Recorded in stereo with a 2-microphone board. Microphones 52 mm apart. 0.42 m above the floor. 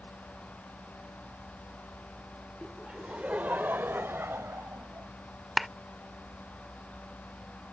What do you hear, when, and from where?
2.6 s laughter: 10° right (ahead or behind); by 5.1 s 60° right (ahead or behind)
5.6 s a clap: centre (ahead or behind)